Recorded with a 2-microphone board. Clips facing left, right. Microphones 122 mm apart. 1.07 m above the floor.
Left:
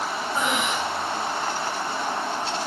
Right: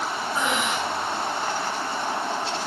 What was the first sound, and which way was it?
Breathing, 15° left (ahead or behind).